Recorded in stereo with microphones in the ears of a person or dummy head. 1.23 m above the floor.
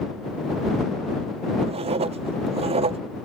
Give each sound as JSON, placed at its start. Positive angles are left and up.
{"t": 1.6, "sound": "writing", "side_deg": -30}